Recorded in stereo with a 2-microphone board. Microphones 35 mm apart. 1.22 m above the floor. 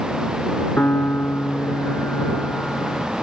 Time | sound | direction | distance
0.8 | a piano | 80° left | ?